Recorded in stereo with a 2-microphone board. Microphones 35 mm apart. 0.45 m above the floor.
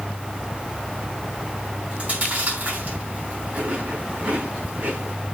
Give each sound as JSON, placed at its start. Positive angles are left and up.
{"t": 1.9, "sound": "chewing", "side_deg": -50, "distance_m": 5.0}